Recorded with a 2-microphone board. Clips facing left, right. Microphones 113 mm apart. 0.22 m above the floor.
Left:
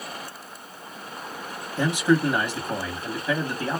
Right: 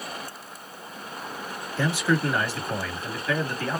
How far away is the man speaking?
About 1.4 m.